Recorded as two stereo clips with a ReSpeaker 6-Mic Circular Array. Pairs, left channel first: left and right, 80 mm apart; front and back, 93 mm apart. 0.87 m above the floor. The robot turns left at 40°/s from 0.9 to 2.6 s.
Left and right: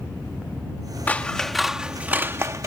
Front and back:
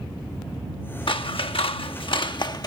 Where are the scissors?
20° left; by 2.7 s 40° right.